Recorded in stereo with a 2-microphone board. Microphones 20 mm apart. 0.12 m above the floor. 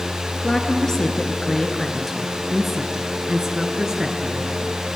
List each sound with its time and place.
0.4 s a woman speaking: 35° left (ahead or behind), 2.5 m; by 4.8 s 45° right (ahead or behind), 2.5 m